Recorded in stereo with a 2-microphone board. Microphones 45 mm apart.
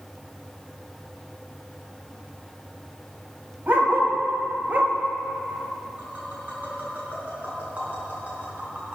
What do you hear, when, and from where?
3.7 s a dog barking: 50° right (ahead or behind), 1.8 m; by 4.9 s 40° right (ahead or behind), 1.6 m
6.0 s tapping: 35° right (ahead or behind), 4 m